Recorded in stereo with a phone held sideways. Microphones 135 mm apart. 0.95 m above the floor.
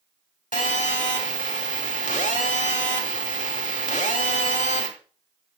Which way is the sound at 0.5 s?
80° left.